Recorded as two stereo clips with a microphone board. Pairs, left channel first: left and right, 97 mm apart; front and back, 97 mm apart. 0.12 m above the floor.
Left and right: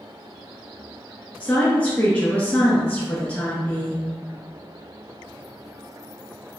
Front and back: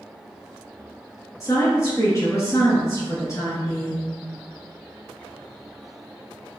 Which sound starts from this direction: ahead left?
A woman speaking, at 1.4 s.